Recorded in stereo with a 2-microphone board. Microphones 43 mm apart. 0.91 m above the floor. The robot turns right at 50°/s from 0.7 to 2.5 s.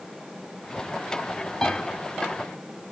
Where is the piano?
15° left (ahead or behind), 2 m; by 1.8 s 25° left (ahead or behind), 2 m.